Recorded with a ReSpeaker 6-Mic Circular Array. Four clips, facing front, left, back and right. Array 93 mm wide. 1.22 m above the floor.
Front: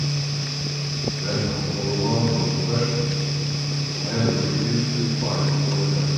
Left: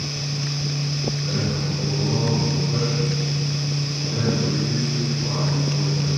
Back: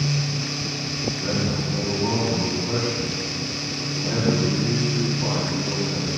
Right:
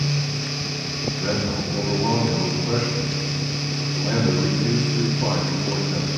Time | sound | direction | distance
1.2 | a man speaking | 85° right | 6 m